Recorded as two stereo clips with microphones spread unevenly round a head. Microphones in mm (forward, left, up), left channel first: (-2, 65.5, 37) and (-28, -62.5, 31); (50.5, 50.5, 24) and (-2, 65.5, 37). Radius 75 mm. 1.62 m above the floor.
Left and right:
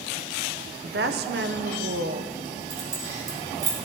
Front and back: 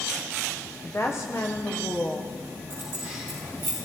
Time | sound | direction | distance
0.8 | a woman speaking | 95° right | 0.8 m
2.7 | keys jangling | 140° right | 4 m